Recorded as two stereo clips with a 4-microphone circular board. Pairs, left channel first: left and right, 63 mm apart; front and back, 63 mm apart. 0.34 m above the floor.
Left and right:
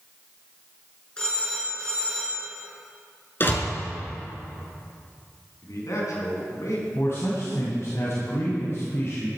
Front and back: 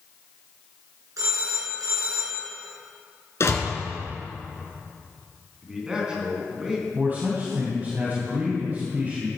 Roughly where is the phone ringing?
Behind.